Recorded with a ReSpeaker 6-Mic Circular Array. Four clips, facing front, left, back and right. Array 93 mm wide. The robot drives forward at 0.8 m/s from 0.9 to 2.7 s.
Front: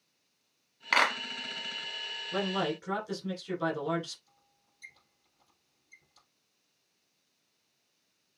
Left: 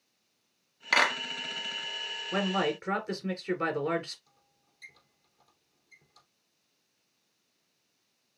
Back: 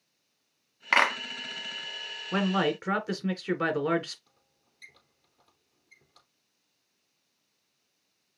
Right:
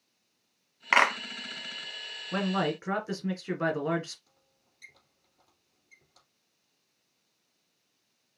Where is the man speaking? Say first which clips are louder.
Even, back 5 dB; 175° right, 1.6 m.